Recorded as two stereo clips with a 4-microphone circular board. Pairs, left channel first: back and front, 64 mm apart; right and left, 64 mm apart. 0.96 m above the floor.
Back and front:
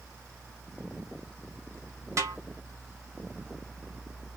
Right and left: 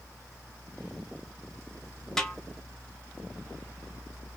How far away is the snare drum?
About 1.2 m.